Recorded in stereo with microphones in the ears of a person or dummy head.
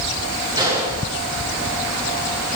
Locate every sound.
0.6 s a gunshot: 20° right (ahead or behind), 6.5 m